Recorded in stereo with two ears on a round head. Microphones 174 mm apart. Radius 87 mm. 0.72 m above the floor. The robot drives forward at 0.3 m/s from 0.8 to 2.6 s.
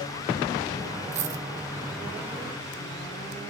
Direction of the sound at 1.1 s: 40° right (ahead or behind).